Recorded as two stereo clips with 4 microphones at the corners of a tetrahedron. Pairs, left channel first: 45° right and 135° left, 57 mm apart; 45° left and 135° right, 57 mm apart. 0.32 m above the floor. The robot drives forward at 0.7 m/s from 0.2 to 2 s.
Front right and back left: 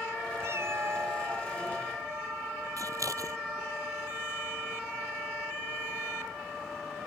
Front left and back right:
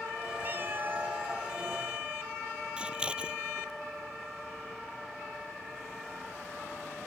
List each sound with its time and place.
0.4 s a cat meowing: 175° left
2.8 s scissors: 155° left